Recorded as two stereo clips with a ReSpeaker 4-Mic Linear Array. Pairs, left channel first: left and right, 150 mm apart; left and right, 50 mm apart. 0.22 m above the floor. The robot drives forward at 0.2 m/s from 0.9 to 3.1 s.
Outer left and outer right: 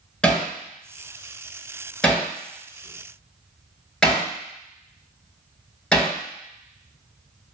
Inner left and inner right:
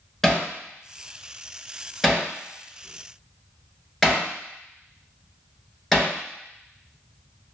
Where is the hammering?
5° left (ahead or behind), 1.8 m.